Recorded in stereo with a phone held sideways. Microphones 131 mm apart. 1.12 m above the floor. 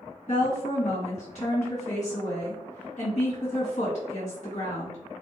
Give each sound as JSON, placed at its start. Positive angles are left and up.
{"t": 0.3, "sound": "a woman speaking", "side_deg": 60, "distance_m": 1.5}